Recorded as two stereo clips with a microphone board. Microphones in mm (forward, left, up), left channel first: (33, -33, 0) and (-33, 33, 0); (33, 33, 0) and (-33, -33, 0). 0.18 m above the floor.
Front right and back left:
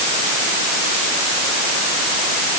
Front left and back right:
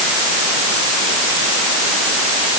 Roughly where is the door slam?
I don't hear a door slam.